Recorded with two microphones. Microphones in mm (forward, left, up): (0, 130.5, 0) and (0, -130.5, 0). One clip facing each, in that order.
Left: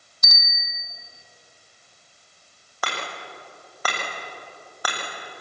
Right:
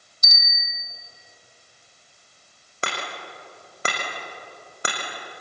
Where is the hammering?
25° right (ahead or behind), 5.5 m.